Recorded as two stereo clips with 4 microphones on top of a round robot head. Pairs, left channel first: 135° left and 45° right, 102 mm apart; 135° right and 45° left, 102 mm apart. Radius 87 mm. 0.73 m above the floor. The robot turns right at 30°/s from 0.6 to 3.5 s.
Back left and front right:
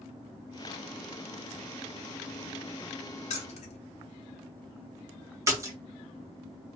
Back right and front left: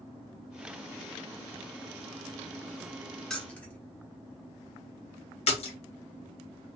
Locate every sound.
3.3 s keys jangling: 140° left, 0.8 m; by 3.8 s 145° left, 0.8 m
5.5 s a splash: 110° right, 1.1 m